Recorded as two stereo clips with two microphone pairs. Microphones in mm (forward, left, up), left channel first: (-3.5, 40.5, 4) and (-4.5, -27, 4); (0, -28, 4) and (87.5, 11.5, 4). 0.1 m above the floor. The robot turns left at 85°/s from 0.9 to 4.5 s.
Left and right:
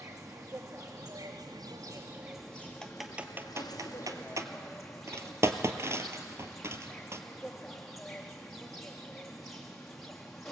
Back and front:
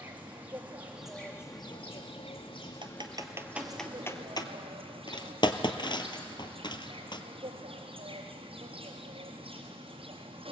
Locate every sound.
0.0 s an insect: 50° right, 4 m; by 10.5 s 5° left, 4 m
2.8 s typing on a keyboard: 15° left, 1.1 m; by 7.2 s 130° right, 1.1 m